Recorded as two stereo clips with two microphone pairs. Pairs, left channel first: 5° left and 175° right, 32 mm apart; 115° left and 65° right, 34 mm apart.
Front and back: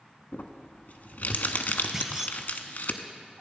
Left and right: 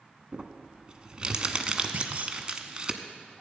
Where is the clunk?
100° right, 0.9 m.